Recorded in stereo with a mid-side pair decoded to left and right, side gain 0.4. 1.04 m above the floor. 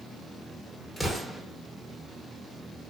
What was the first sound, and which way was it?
An explosion, 15° left.